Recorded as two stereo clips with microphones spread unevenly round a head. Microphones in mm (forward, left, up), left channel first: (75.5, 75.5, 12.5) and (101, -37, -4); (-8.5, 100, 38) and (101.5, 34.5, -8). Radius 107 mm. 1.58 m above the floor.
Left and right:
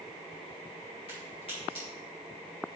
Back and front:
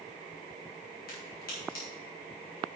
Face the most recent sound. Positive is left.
turn(degrees=170)